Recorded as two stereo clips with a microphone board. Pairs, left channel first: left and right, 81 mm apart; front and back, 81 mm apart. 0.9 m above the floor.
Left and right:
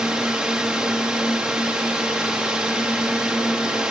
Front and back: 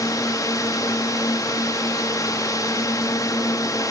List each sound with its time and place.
0.0 s a drone: 10° right